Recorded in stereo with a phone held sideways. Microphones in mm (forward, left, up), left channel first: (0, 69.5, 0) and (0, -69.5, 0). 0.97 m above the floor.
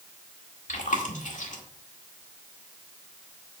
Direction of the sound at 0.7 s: 75° left (ahead or behind).